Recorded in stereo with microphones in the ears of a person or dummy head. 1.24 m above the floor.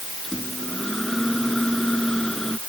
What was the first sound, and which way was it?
A microwave, centre (ahead or behind).